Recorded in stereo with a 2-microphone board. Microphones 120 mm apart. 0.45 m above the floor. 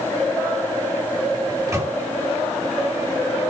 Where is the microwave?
30° right (ahead or behind), 2.5 m.